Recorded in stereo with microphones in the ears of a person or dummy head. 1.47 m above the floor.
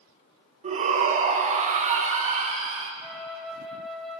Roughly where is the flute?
Centre.